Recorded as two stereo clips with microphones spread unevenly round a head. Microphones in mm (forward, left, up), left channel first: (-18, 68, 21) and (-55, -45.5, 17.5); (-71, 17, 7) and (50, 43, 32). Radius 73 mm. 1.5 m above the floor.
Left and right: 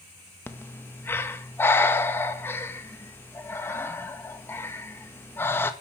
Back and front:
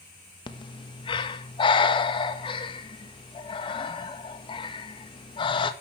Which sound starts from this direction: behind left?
Breathing, at 0.5 s.